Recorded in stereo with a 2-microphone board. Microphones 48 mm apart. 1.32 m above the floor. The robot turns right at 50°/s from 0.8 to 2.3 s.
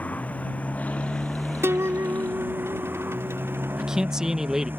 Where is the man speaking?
15° right (ahead or behind).